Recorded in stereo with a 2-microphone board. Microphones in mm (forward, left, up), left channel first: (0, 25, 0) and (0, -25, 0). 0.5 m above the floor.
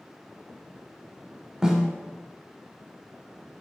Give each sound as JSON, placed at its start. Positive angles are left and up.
{"t": 1.6, "sound": "a snare drum", "side_deg": -15, "distance_m": 0.6}